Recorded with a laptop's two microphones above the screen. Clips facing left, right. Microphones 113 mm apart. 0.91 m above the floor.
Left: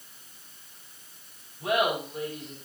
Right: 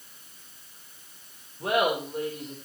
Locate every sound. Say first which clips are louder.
1.6 s laughter: right 1 dB; 50° right (ahead or behind), 3 m